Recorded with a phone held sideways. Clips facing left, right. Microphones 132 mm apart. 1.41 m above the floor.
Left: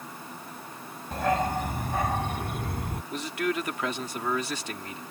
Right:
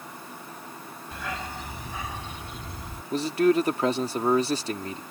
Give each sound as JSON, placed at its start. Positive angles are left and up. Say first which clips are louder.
{"t": 1.1, "sound": "a dog barking", "louder": "left 10 dB", "side_deg": 50}
{"t": 3.1, "sound": "a man speaking", "louder": "right 9 dB", "side_deg": -35}